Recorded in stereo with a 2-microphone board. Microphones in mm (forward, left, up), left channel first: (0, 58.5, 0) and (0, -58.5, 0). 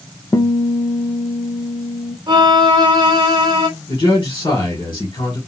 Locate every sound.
0.3 s a guitar: 30° left (ahead or behind), 0.5 m
2.3 s a violin: 40° right (ahead or behind), 1.2 m
3.9 s a man speaking: 45° left (ahead or behind), 1.5 m